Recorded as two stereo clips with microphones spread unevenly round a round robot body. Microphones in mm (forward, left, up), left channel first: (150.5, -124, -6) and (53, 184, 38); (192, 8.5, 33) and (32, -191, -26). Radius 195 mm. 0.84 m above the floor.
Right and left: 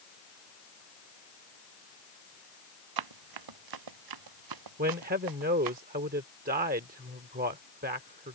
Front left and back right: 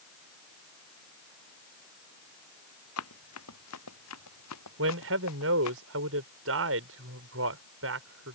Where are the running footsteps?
105° left; by 5.8 s 90° left.